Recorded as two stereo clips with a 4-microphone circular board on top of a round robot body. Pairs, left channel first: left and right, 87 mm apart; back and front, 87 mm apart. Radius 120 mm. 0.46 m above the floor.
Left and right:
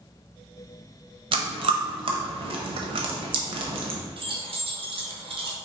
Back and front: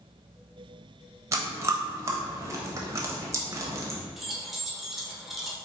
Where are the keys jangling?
90° right, 1.1 m.